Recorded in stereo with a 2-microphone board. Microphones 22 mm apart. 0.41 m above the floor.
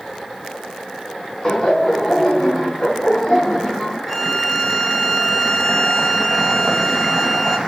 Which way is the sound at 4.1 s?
5° right (ahead or behind).